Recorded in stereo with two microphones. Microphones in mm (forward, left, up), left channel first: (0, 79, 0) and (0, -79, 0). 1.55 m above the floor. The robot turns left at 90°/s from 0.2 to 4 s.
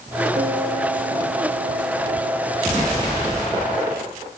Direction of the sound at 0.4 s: 50° right.